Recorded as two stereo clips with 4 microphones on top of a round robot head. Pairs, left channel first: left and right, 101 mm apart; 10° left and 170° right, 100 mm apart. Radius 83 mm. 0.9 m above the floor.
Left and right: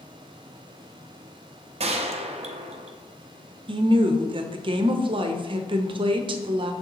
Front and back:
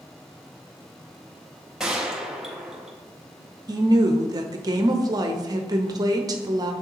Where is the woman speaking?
120° right, 0.8 m.